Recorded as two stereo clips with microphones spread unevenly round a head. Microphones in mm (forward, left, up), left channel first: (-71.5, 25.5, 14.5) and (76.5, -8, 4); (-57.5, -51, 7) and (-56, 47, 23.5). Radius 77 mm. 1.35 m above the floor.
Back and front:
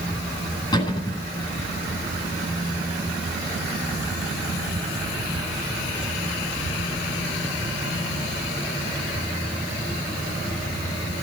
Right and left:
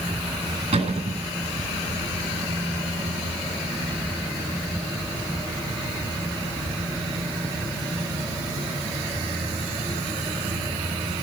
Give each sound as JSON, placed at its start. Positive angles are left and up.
{"t": 0.7, "sound": "a cupboard door", "azimuth_deg": 105, "distance_m": 10.0}